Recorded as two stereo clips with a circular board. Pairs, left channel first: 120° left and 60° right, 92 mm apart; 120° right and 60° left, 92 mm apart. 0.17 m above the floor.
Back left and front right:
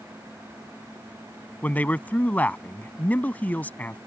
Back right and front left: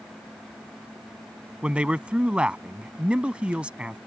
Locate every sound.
1.6 s a man speaking: 110° left